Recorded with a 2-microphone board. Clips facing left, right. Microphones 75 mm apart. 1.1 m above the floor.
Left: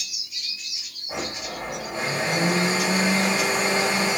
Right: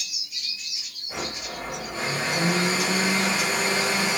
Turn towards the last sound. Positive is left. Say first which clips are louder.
# left 2 dB
turn(degrees=35)  # may be behind; listen again after turning